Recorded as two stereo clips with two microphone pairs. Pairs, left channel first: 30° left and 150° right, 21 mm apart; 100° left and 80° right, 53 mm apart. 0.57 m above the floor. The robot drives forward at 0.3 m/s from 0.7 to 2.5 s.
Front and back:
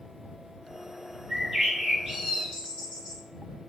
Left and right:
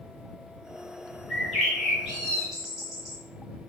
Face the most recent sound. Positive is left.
turn(degrees=-170)